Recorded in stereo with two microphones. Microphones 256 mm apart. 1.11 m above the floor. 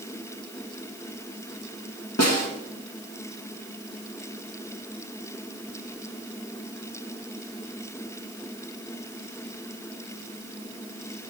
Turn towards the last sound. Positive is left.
turn(degrees=70)  # may be behind; listen again after turning